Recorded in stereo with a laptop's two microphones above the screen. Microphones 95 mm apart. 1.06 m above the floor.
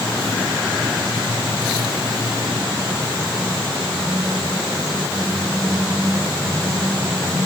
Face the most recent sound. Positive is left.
No sound to turn to.